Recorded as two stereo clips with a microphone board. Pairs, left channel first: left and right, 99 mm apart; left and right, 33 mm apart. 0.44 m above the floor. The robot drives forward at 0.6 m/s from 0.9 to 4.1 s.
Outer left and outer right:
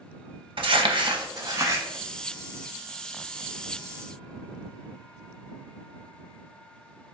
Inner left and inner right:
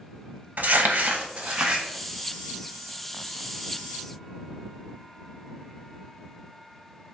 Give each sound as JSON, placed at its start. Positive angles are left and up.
{"t": 0.6, "sound": "crumpling", "side_deg": -55, "distance_m": 0.5}